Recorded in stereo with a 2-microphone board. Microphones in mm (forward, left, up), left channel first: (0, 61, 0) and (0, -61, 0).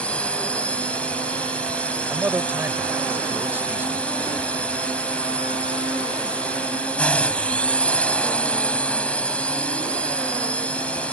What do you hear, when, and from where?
0.0 s a drone: 10° left (ahead or behind)
2.1 s a man speaking: 15° right (ahead or behind)